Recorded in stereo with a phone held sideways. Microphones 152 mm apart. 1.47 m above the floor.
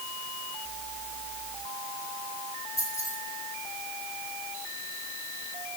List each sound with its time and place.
2.8 s keys jangling: 20° left (ahead or behind), 6 m